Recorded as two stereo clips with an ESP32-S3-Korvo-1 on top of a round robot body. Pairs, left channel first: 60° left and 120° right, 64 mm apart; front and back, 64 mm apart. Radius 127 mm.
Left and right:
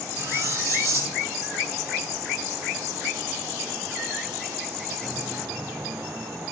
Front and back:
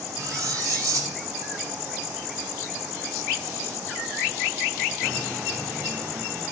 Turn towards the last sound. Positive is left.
turn(degrees=-155)